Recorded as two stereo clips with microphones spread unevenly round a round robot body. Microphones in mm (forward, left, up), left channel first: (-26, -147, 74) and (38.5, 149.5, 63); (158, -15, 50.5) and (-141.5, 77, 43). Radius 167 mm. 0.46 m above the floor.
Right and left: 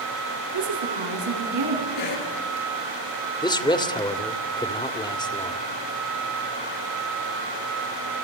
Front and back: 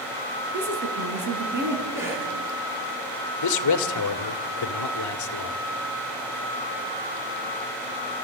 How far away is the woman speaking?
About 5.5 m.